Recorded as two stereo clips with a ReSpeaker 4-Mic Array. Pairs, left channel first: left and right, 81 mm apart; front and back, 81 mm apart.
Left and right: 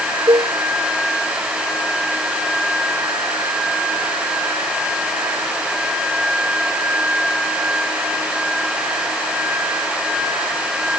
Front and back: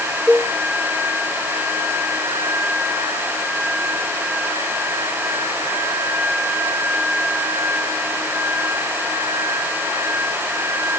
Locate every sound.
0.3 s a cowbell: 100° right